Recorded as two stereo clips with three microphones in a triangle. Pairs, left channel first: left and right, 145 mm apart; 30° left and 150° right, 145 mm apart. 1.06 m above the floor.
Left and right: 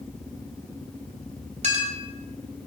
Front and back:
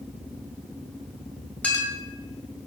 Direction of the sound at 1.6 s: 50° right.